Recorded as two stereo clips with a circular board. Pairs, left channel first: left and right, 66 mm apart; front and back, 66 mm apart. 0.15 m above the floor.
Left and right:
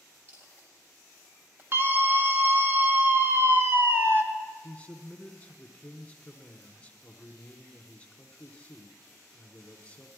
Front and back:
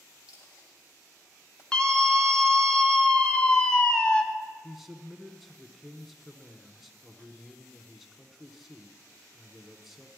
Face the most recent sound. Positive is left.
turn(degrees=95)